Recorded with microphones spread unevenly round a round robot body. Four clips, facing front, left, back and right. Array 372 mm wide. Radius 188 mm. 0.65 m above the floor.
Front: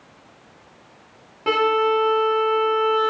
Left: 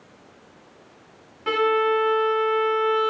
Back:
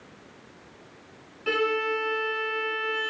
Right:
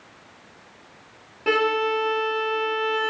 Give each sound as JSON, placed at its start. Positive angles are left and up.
{"t": 1.5, "sound": "a violin", "azimuth_deg": -25, "distance_m": 0.8}